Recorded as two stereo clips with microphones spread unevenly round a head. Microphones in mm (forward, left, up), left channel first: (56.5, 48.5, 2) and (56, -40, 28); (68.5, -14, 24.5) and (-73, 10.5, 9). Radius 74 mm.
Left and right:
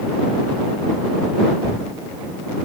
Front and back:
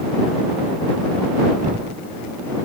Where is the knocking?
150° right.